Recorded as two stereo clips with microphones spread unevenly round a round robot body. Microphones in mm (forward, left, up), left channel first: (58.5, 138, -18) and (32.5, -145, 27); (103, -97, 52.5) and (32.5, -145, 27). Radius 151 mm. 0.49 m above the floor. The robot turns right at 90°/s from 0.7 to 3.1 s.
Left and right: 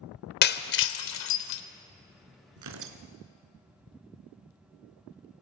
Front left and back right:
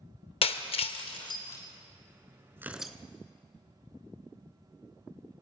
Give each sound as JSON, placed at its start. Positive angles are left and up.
{"t": 0.4, "sound": "breaking glass", "azimuth_deg": 40, "distance_m": 1.1}
{"t": 2.6, "sound": "tearing paper", "azimuth_deg": -80, "distance_m": 1.6}